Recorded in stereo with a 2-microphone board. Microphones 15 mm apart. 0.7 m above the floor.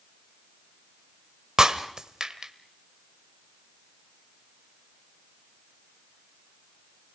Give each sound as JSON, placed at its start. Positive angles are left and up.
{"t": 1.6, "sound": "breaking glass", "side_deg": -55, "distance_m": 1.1}